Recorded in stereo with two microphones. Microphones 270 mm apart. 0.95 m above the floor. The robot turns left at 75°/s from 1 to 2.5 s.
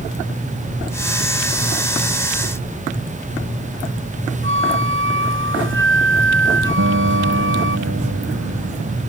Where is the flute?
50° right (ahead or behind).